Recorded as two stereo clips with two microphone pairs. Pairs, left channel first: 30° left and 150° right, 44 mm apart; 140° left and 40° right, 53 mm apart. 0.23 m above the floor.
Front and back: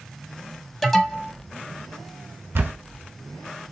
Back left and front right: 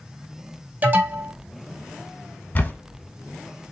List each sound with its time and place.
0.8 s an alarm: 35° right, 0.7 m
2.5 s a camera shutter: 170° right, 0.6 m